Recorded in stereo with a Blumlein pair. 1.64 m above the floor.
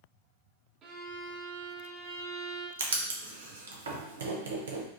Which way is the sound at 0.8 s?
25° right.